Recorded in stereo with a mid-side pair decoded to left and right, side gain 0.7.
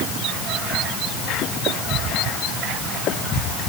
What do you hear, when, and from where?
Only background noise.